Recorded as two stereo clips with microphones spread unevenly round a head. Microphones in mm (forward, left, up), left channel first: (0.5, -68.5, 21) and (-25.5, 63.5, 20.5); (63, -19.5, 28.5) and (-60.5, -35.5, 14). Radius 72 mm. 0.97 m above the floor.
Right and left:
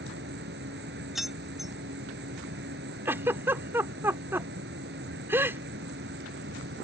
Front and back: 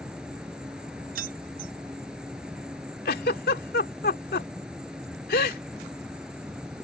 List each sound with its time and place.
0.0 s an insect: 100° left
1.1 s keys jangling: 170° right
3.0 s a giggle: 25° left